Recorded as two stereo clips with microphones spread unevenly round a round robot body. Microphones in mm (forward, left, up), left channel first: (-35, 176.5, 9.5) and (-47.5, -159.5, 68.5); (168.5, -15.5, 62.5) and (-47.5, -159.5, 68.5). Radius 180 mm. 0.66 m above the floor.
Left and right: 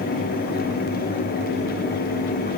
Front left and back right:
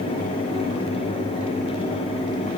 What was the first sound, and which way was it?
Only background noise.